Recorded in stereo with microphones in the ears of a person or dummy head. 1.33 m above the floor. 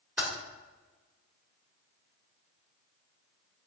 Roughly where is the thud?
No thud in this recording.